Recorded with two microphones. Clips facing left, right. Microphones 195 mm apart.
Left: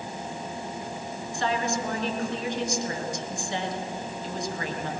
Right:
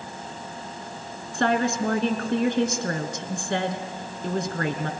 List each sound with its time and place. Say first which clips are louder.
1.3 s a woman speaking: right 5 dB; 65° right (ahead or behind), 2.5 m